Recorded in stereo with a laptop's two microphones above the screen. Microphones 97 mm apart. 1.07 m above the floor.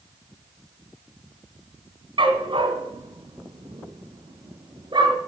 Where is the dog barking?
55° right (ahead or behind), 2.5 m; by 5.1 s 50° right (ahead or behind), 4 m.